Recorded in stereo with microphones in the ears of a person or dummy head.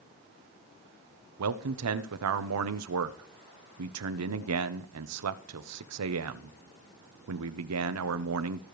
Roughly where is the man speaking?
Right.